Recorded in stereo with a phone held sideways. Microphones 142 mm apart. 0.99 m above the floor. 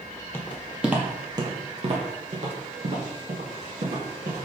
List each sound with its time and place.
0.3 s footsteps: 15° left (ahead or behind), 1.3 m; by 4.5 s 75° right (ahead or behind), 3.5 m